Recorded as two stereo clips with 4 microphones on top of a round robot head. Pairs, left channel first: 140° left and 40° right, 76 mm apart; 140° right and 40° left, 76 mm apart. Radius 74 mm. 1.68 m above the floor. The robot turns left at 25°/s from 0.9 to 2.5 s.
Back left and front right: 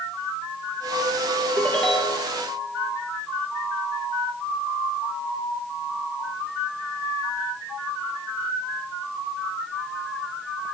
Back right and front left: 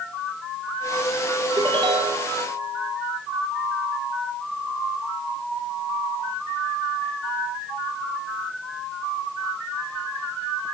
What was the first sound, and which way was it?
A ringtone, 65° left.